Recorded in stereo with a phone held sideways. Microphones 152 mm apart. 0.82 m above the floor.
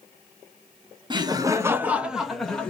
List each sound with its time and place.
1.1 s laughter: 30° right (ahead or behind), 0.7 m; by 2.7 s 5° left (ahead or behind), 0.9 m